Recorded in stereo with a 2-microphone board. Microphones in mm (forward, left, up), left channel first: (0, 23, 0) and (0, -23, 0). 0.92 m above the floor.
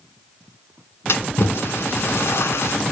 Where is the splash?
65° left (ahead or behind), 1.7 m.